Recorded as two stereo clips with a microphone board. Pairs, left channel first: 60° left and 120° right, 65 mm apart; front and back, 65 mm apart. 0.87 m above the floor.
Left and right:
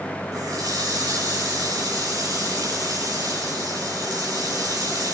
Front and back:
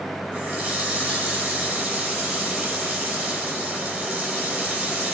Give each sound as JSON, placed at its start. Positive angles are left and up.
{"t": 0.3, "sound": "a running tap", "azimuth_deg": -120, "distance_m": 6.0}